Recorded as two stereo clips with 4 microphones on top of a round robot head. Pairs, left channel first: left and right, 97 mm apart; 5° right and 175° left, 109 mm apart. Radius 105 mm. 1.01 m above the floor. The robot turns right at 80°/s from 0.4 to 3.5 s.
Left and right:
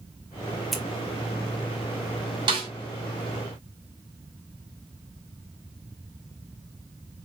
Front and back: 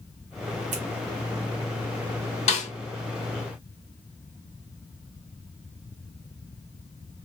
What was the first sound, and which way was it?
Scissors, 175° left.